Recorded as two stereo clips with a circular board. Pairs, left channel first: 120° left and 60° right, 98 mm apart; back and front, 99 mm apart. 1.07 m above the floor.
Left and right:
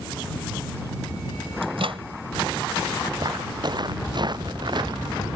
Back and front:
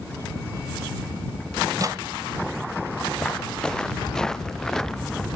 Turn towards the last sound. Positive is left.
turn(degrees=-95)